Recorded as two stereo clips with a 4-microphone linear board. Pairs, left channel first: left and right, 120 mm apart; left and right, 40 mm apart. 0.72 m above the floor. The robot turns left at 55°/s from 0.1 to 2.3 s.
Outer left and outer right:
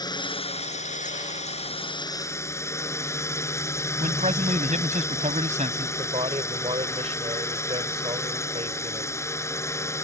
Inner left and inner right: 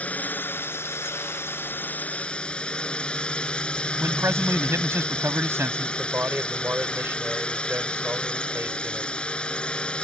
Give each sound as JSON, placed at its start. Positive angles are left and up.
{"t": 0.0, "sound": "a drone", "azimuth_deg": 145}
{"t": 4.0, "sound": "a man speaking", "side_deg": -80}
{"t": 6.0, "sound": "a man speaking", "side_deg": -55}